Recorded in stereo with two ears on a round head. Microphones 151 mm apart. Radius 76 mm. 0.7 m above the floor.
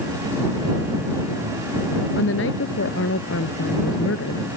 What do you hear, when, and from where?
2.2 s a woman speaking: 70° left (ahead or behind); by 4.4 s 80° left